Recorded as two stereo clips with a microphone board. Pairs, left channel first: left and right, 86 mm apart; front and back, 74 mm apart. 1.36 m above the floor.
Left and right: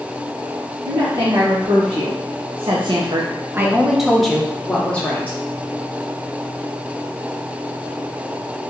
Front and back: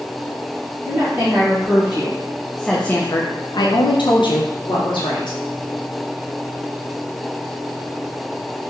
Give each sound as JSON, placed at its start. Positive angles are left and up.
{"t": 0.8, "sound": "a woman speaking", "azimuth_deg": -120, "distance_m": 1.4}